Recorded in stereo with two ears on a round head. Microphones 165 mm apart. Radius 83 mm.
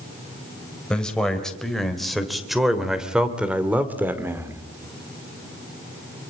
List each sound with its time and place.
0.9 s a man speaking: 5° left (ahead or behind), 3.5 m; by 4.6 s 15° right (ahead or behind), 2 m